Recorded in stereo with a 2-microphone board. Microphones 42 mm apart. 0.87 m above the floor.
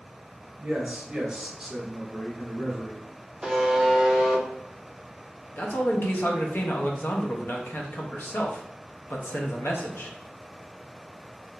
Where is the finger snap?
No finger snap in this recording.